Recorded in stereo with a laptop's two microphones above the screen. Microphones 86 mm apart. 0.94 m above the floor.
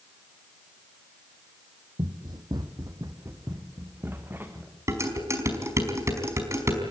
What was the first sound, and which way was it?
Running footsteps, 60° right (ahead or behind).